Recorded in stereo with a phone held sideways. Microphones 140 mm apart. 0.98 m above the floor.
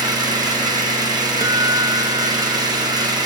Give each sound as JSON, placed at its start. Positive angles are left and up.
{"t": 0.0, "sound": "an engine running", "side_deg": -30, "distance_m": 6.0}
{"t": 1.4, "sound": "a guitar", "side_deg": -25, "distance_m": 0.7}